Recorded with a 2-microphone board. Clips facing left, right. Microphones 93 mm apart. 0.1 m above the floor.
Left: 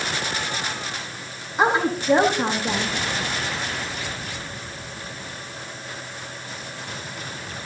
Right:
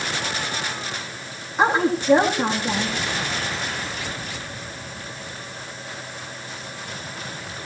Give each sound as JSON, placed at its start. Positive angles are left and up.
{"t": 1.6, "sound": "a woman speaking", "side_deg": 5, "distance_m": 4.5}